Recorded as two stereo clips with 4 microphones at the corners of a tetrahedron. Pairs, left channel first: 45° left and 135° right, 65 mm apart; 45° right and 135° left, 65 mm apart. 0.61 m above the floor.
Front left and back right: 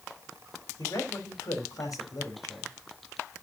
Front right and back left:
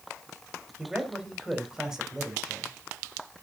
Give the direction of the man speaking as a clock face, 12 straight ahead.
10 o'clock.